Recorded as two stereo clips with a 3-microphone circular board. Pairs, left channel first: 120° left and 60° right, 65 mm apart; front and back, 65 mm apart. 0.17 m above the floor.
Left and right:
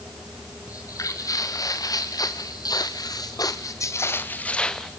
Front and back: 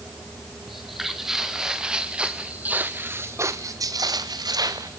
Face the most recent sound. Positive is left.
turn(degrees=-155)